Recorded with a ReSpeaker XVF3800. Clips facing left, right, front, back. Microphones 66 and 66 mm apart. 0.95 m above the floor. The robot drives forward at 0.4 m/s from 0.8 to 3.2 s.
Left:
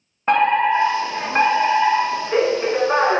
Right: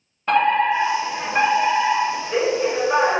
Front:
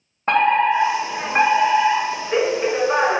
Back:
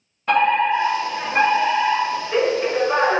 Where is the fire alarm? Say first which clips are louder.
Left 1 dB, front 1 dB; 35° left, 1.9 m; by 3.2 s 75° left, 1.5 m.